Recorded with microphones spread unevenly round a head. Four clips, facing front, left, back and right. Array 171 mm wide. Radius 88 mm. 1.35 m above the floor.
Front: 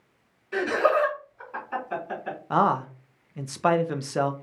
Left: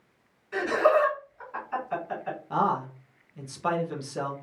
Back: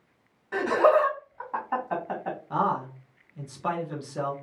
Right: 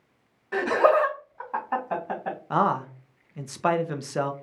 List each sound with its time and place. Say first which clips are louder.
0.5 s laughter: right 2 dB, back 2 dB; 115° right, 2.0 m
2.5 s a man speaking: right 2 dB, front 4 dB; 30° right, 0.6 m